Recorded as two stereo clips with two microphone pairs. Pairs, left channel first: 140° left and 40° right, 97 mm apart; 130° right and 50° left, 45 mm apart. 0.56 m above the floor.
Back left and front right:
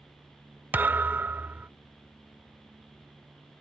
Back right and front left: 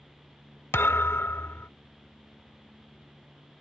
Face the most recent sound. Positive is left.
turn(degrees=-110)